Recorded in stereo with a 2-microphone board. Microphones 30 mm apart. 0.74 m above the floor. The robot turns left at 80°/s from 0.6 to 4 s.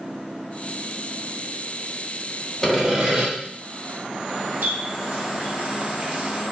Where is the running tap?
65° right (ahead or behind), 0.8 m.